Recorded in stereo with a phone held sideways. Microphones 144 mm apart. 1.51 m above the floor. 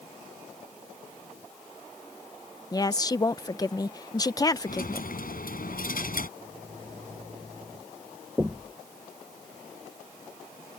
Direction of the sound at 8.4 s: 5° right (ahead or behind).